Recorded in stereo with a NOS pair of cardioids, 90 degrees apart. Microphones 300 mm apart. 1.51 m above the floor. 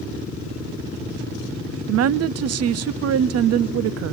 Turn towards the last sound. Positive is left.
turn(degrees=-60)